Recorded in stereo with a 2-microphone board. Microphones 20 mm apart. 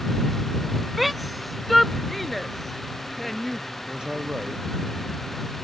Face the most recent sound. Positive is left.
turn(degrees=-45)  # may be behind; listen again after turning